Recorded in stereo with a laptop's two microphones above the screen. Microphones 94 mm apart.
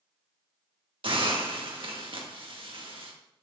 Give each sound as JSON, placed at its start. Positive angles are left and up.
{"t": 1.0, "sound": "a hiss", "side_deg": -65, "distance_m": 1.6}